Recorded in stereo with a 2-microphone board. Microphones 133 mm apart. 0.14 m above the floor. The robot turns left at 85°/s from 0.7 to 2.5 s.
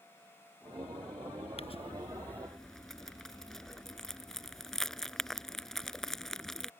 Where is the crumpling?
50° left (ahead or behind); by 6.7 s 5° left (ahead or behind).